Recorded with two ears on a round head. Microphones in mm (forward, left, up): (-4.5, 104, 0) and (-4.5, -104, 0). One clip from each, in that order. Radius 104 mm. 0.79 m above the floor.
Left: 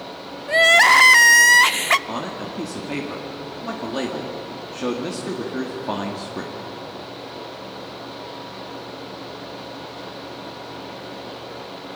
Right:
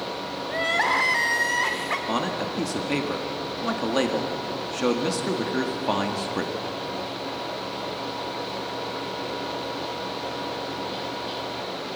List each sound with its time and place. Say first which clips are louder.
0.5 s crying: left 11 dB; 75° left (ahead or behind), 0.6 m
2.1 s a man speaking: right 2 dB; 20° right (ahead or behind), 1.6 m